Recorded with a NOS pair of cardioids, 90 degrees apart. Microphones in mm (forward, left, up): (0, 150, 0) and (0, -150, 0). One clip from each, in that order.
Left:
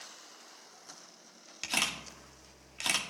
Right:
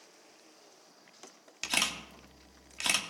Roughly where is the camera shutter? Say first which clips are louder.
Right 1 dB; ahead.